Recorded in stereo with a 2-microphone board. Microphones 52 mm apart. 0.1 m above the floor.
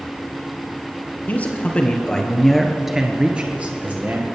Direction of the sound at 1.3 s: 30° left (ahead or behind).